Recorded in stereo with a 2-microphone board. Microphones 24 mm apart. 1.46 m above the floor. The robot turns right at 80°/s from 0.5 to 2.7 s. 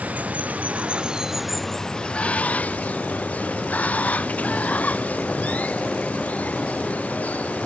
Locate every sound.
0.0 s running water: 80° right; by 7.7 s 95° left